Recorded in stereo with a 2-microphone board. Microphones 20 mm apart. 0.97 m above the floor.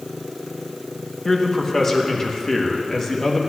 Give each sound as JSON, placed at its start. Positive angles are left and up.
{"t": 1.2, "sound": "a man speaking", "side_deg": 20, "distance_m": 1.1}